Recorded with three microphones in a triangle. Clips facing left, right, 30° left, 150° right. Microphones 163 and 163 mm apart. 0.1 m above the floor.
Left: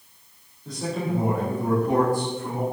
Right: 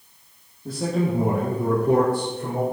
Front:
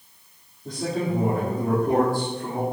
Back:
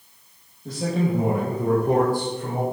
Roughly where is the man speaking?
Ahead right.